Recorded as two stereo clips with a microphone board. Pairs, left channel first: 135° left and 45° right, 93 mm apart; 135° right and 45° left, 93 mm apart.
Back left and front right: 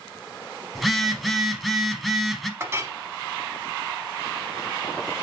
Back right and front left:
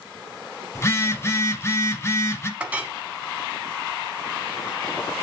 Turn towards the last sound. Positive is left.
turn(degrees=-15)